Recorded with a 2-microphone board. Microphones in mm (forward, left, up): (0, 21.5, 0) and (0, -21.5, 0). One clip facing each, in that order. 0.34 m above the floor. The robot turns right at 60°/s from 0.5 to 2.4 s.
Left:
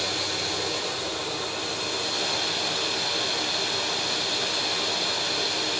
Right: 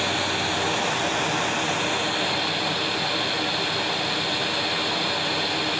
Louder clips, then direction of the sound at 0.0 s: Right 5 dB; 130° right.